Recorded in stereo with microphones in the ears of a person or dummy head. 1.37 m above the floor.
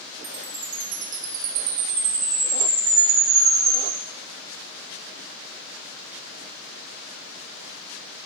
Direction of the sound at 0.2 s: 65° right (ahead or behind).